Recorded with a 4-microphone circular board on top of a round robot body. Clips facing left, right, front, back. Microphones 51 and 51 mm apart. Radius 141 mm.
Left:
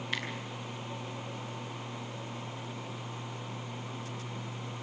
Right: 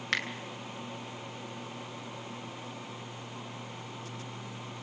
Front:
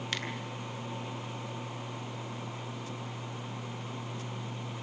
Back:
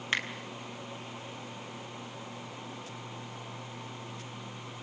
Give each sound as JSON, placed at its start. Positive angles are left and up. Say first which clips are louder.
{"t": 0.1, "sound": "a finger snap", "louder": "right 5 dB, back 6 dB", "azimuth_deg": -115, "distance_m": 3.0}